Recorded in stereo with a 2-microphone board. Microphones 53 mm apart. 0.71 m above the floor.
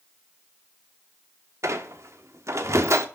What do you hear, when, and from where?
1.6 s a squeak: 60° right (ahead or behind), 1.1 m